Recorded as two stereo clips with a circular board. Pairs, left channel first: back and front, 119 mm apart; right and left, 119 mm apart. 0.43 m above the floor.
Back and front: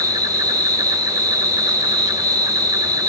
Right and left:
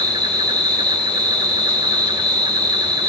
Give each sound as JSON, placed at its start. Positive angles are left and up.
{"t": 0.0, "sound": "an insect", "azimuth_deg": 50, "distance_m": 3.0}